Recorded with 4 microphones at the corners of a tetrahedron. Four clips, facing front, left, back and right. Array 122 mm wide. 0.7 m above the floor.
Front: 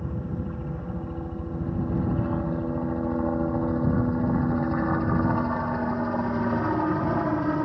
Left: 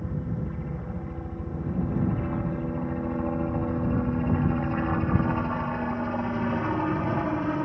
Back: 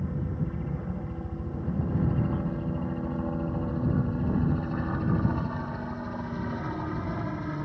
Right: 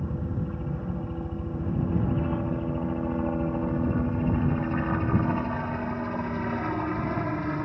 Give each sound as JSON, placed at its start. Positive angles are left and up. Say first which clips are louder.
{"t": 0.0, "sound": "a helicopter", "louder": "even, even", "azimuth_deg": -40}